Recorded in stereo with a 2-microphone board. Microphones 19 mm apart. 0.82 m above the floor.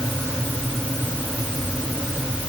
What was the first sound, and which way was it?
Only background noise.